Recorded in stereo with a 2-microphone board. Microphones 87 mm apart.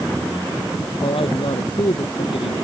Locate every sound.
1.0 s a man speaking: 80° left